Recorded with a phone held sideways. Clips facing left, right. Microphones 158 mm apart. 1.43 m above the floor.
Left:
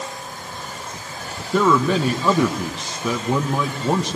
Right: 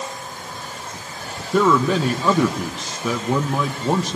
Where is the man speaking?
5° right (ahead or behind), 1.5 m.